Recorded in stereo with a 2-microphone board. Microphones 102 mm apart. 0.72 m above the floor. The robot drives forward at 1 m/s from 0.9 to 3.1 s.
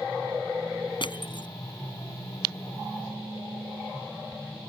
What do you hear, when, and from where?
1.0 s crushing: 55° left (ahead or behind); by 1.5 s 50° left (ahead or behind)